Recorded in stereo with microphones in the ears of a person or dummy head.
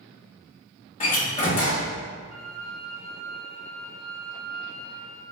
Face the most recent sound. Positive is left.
turn(degrees=-75)  # may be behind; listen again after turning